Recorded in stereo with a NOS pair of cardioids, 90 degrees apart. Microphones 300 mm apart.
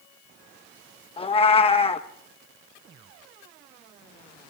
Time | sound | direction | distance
1.2 | a cat meowing | 20° left | 1.1 m